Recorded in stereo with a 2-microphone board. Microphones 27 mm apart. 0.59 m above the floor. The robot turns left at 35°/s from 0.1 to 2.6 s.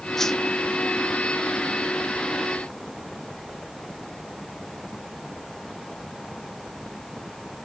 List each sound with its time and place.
0.2 s a whoosh: 10° left (ahead or behind), 0.5 m; by 0.4 s 15° left (ahead or behind), 0.5 m